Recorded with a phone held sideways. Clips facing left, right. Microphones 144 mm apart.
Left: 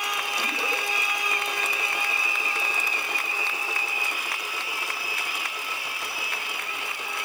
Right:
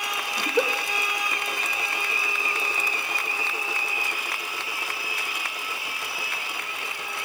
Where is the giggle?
60° right (ahead or behind), 4 m.